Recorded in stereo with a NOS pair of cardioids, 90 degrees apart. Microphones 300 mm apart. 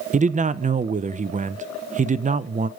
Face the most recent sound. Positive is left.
turn(degrees=-25)